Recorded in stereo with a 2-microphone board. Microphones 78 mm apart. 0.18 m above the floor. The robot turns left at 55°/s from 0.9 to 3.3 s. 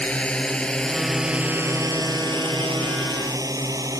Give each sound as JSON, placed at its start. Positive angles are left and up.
{"t": 0.0, "sound": "a drone", "side_deg": 15}